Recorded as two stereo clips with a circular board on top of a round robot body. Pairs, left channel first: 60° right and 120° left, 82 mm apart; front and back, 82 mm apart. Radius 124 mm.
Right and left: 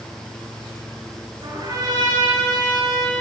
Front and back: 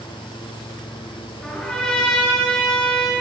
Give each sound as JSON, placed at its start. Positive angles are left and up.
{"t": 1.4, "sound": "a trumpet", "azimuth_deg": 80, "distance_m": 6.5}